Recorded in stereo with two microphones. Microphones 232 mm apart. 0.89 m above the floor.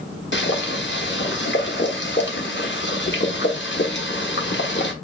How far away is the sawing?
I don't hear sawing.